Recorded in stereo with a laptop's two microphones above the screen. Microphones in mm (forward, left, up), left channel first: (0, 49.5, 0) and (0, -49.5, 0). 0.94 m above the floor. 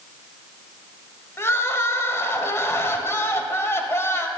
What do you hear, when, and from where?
1.4 s crying: 30° left (ahead or behind), 0.9 m